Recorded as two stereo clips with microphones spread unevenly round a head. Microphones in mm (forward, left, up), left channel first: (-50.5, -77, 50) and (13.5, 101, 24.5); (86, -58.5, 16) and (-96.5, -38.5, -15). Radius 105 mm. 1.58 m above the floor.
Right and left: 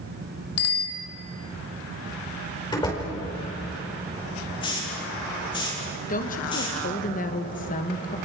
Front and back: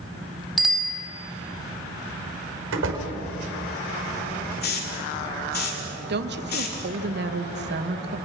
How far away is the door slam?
About 5 m.